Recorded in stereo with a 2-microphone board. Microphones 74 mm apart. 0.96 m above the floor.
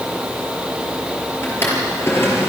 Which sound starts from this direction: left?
A drawer, at 1.4 s.